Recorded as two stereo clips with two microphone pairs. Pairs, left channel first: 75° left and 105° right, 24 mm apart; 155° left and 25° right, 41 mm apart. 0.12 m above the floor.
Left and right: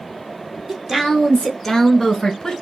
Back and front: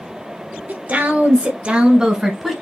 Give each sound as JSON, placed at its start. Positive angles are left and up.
{"t": 0.7, "sound": "a woman speaking", "azimuth_deg": -40, "distance_m": 1.9}